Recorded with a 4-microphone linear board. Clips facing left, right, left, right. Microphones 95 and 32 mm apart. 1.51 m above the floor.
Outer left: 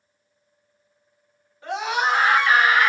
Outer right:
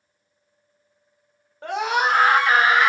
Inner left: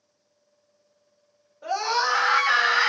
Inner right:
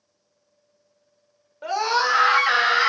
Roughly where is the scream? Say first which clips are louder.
Outer right 2 dB, inner right 3 dB; right.